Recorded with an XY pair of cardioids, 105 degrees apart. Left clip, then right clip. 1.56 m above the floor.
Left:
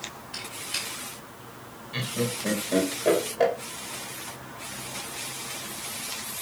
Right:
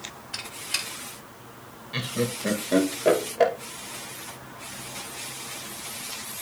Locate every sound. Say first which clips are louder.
0.3 s a squeak: right 3 dB; 50° right, 4 m
1.9 s laughter: right 1 dB; 30° right, 2 m